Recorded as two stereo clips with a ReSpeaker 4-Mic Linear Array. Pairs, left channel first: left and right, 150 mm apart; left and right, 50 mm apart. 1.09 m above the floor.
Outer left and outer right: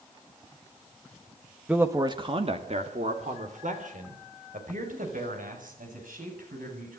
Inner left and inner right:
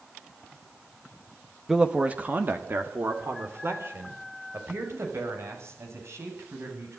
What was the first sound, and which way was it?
A man speaking, 10° right (ahead or behind).